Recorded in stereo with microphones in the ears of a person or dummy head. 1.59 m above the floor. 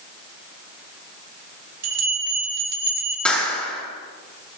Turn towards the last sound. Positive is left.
turn(degrees=5)  # may be behind; listen again after turning